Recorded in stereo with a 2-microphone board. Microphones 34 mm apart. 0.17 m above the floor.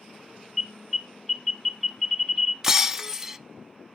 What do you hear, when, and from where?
0.6 s an alarm: 5° left (ahead or behind), 1.6 m
2.6 s breaking glass: 15° right (ahead or behind), 0.5 m